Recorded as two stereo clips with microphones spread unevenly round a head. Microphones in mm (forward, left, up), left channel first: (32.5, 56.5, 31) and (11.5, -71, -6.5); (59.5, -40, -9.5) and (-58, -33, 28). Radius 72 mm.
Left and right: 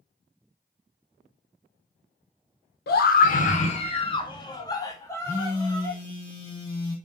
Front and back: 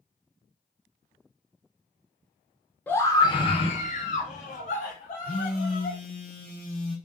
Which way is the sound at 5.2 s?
15° left.